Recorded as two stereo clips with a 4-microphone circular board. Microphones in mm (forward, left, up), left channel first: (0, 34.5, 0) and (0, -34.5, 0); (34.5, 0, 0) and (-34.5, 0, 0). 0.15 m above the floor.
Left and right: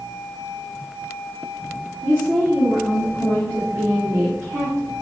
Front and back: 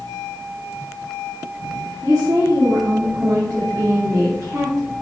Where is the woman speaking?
145° right, 3.5 m.